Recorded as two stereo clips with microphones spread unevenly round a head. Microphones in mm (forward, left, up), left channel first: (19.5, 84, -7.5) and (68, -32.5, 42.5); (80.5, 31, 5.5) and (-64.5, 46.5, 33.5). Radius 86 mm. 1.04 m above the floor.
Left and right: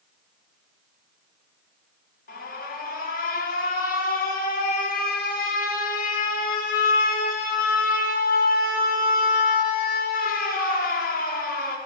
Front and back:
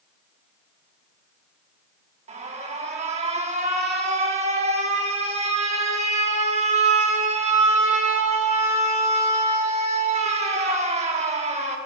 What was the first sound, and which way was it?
An alarm, 130° left.